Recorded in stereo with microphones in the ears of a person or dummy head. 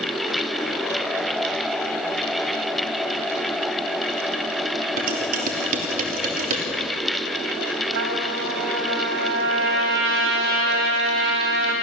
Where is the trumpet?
75° right (ahead or behind), 3.5 m.